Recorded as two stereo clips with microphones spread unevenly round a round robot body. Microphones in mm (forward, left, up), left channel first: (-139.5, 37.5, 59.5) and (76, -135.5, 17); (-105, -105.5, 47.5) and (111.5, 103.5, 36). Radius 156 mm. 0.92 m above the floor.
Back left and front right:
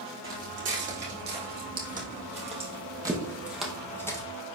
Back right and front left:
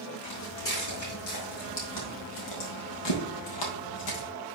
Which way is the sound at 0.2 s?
85° right.